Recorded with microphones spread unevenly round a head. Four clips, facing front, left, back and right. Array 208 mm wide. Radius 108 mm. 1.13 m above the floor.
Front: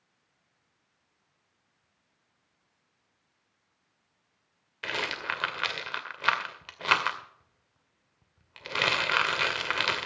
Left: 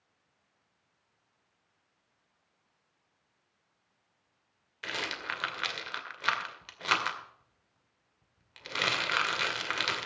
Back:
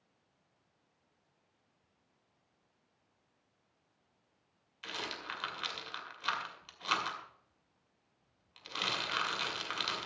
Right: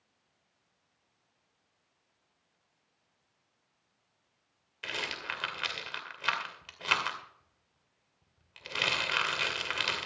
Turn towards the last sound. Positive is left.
turn(degrees=5)